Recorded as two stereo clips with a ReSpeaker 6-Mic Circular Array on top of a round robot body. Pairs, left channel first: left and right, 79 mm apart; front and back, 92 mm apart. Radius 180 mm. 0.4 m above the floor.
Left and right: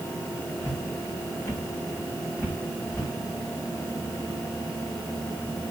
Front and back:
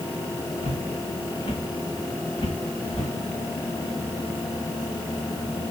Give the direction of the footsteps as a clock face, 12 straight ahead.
11 o'clock.